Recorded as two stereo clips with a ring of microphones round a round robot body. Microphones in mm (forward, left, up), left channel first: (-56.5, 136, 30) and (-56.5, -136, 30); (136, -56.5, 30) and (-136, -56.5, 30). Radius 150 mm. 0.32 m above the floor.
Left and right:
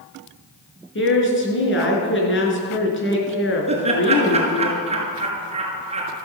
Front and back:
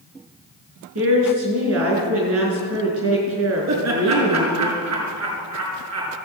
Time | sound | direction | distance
0.9 | a woman speaking | 135° left | 4.5 m
3.7 | laughter | 155° right | 5.5 m